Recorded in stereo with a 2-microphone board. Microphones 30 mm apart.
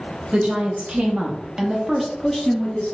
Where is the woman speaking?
55° right (ahead or behind), 1.3 m; by 2.9 s 35° left (ahead or behind), 0.9 m.